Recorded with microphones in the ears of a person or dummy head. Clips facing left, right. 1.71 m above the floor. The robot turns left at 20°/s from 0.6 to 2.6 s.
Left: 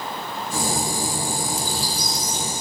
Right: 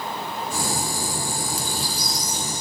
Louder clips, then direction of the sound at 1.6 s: Left 2 dB; 45° right (ahead or behind).